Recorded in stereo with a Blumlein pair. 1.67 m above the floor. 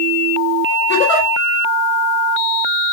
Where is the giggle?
45° left, 2.5 m.